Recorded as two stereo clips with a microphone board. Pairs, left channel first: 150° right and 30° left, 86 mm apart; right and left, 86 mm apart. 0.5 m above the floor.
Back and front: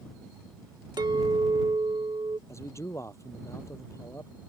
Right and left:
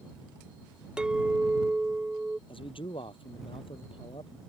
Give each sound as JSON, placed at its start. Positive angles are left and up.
{"t": 1.0, "sound": "a clink", "azimuth_deg": 10}
{"t": 2.5, "sound": "a man speaking", "azimuth_deg": -95}